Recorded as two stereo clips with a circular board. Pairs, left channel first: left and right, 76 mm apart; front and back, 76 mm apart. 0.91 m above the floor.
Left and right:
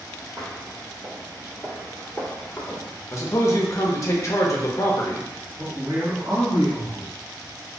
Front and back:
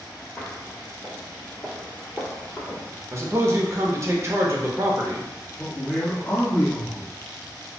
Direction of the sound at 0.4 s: 75° right.